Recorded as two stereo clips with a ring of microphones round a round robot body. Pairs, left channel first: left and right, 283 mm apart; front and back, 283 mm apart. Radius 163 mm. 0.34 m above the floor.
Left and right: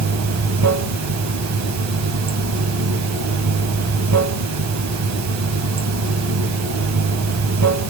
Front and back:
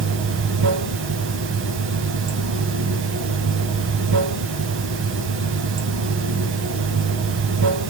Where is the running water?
125° right, 0.7 m.